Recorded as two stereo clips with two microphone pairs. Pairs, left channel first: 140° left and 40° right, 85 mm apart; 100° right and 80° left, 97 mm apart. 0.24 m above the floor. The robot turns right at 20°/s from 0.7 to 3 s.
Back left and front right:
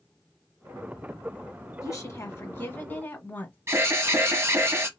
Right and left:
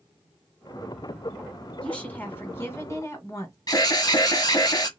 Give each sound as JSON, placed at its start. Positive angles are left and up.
{"t": 1.8, "sound": "a woman speaking", "azimuth_deg": 180, "distance_m": 1.7}
{"t": 3.7, "sound": "an alarm", "azimuth_deg": -85, "distance_m": 1.0}